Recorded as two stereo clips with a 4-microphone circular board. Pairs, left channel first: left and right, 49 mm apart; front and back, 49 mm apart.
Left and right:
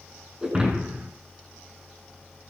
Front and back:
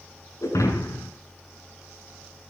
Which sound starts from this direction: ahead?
Breaking glass, at 0.4 s.